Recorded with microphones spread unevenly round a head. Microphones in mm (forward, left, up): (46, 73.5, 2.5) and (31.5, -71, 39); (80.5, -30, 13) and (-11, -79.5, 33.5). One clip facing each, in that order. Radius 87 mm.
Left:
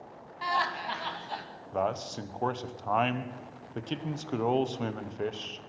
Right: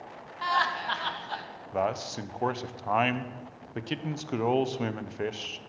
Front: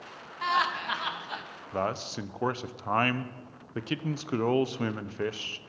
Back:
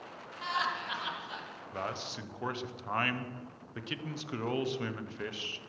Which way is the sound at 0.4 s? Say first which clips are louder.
Right 2 dB, front 6 dB; 10° left.